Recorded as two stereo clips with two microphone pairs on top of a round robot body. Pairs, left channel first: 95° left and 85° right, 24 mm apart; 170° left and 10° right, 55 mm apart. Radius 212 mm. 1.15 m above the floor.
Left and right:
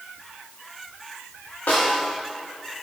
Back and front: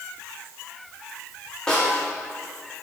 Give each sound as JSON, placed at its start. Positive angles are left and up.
{"t": 1.7, "sound": "a snare drum", "azimuth_deg": 90, "distance_m": 1.2}